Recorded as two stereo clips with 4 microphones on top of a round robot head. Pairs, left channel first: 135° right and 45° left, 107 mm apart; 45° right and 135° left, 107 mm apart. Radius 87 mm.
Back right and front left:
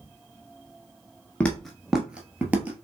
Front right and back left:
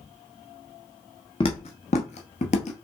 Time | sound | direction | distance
1.4 | footsteps | 65° right | 0.5 m